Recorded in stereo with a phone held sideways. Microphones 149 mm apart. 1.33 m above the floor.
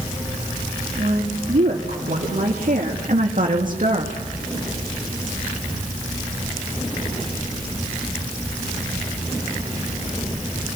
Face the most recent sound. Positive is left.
turn(degrees=-60)  # may be behind; listen again after turning